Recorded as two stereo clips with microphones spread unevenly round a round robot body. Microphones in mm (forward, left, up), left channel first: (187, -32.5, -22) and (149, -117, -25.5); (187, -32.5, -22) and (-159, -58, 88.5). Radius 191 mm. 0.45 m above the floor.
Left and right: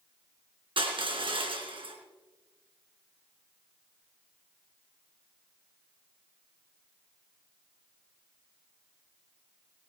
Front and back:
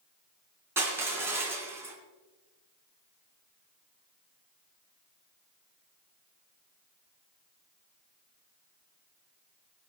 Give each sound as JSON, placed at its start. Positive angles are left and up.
{"t": 0.8, "sound": "crushing", "azimuth_deg": -90, "distance_m": 3.5}